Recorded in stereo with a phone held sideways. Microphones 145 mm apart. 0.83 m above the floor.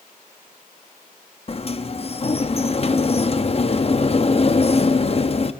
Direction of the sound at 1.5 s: 45° left (ahead or behind).